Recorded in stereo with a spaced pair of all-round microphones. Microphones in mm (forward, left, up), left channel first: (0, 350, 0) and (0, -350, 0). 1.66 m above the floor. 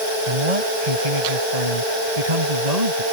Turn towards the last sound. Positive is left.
turn(degrees=-65)  # may be behind; listen again after turning